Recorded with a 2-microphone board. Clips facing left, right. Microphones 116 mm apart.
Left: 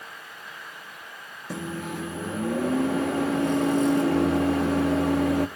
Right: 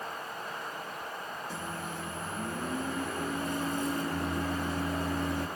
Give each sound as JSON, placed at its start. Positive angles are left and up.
{"t": 1.5, "sound": "a microwave", "side_deg": 75, "distance_m": 0.9}